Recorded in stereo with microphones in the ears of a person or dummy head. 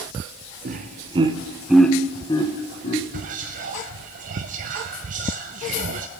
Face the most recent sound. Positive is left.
turn(degrees=-50)  # may be behind; listen again after turning